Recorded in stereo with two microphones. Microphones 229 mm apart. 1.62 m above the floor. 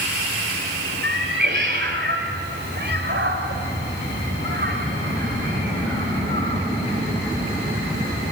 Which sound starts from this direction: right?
A cat meowing, at 1.0 s.